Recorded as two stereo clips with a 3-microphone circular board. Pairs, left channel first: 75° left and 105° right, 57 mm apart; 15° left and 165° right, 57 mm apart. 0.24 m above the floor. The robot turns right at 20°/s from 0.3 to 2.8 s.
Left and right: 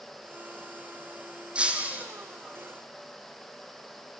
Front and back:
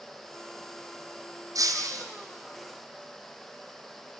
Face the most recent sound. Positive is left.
turn(degrees=-150)